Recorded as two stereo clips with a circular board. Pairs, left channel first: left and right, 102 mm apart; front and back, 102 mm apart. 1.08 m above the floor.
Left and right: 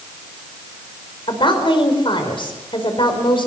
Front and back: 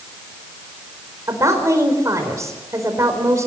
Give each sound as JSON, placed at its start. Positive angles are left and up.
{"t": 1.3, "sound": "a woman speaking", "azimuth_deg": 120, "distance_m": 5.0}